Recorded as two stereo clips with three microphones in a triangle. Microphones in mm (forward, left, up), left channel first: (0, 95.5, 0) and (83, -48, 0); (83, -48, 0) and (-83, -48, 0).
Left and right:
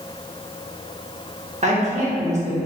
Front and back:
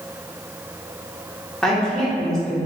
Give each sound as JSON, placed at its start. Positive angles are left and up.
{"t": 1.6, "sound": "a woman speaking", "azimuth_deg": -85, "distance_m": 1.0}